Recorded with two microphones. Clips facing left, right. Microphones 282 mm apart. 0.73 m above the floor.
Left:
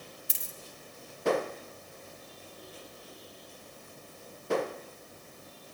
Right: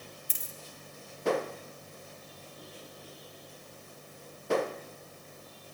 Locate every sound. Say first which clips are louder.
0.3 s a dropped coin: even; 80° left, 1.7 m